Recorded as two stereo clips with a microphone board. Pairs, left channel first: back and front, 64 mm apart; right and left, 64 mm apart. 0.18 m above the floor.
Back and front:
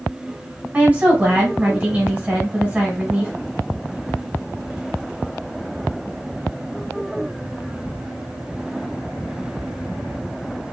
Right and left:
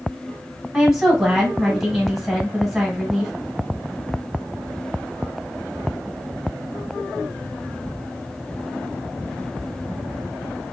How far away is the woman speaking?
About 1.2 m.